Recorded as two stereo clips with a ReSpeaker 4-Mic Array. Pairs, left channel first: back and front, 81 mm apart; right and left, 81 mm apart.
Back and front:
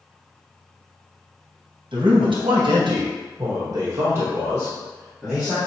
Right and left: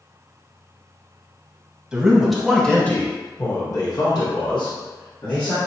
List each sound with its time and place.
1.9 s a man speaking: 10° left, 1.1 m; by 5.6 s 85° right, 1.4 m